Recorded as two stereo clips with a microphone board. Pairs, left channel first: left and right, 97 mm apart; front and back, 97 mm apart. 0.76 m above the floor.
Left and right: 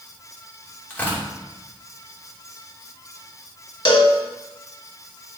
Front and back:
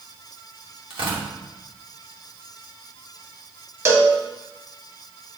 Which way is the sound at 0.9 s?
165° left.